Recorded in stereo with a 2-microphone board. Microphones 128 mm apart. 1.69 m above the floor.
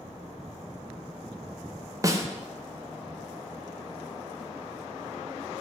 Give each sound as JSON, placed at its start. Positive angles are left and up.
{"t": 2.0, "sound": "a snare drum", "side_deg": -25, "distance_m": 0.6}